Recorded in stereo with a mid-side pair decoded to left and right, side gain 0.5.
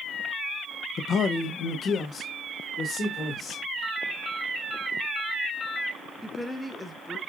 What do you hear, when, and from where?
1.0 s a man speaking: 50° left, 0.6 m; by 3.6 s 45° left, 2.0 m
3.8 s a ringtone: 40° left, 1.6 m
6.2 s a woman speaking: 5° left, 0.9 m